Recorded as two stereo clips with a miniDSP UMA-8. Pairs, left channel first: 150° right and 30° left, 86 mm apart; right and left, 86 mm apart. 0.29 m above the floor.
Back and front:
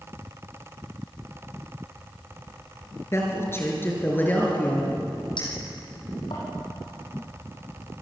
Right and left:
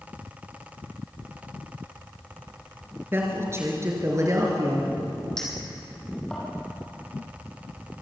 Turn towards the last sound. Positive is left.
turn(degrees=-175)